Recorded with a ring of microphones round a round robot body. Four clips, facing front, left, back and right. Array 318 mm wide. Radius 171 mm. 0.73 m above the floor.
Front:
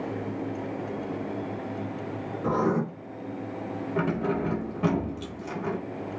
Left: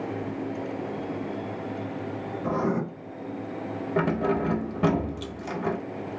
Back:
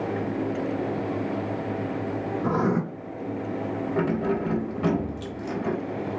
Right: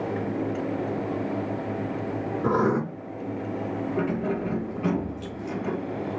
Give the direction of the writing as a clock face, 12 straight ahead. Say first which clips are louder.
Right 4 dB, even; 3 o'clock.